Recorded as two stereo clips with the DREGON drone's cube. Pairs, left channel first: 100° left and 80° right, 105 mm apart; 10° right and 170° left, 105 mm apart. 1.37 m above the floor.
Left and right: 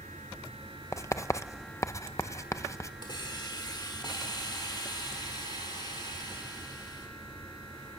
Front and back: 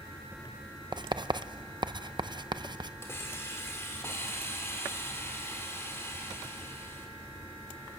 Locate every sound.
0.9 s writing: 155° left, 0.6 m
3.0 s a hiss: 55° left, 2.5 m